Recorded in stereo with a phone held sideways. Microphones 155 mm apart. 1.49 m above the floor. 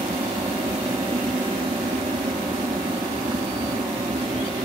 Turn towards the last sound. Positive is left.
turn(degrees=-30)  # may be behind; listen again after turning